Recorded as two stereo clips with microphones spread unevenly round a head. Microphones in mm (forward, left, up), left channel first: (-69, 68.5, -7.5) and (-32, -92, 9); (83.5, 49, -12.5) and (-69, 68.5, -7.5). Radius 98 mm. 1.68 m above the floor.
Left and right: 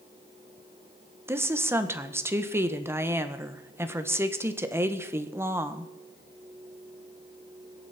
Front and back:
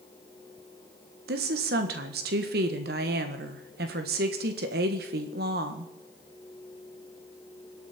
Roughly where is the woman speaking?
Behind right.